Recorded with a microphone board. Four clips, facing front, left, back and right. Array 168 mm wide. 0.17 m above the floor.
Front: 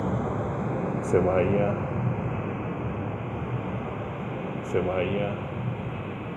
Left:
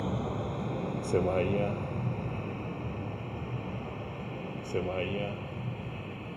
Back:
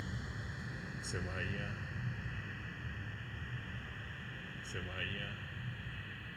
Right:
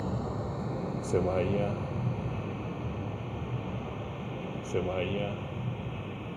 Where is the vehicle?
10° left; by 6.4 s 5° right.